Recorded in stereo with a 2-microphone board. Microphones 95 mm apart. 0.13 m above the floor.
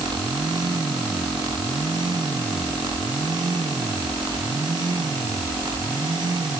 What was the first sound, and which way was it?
Only background noise.